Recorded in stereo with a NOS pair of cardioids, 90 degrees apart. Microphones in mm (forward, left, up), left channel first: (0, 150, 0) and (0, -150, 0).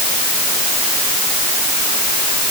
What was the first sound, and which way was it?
Only background noise.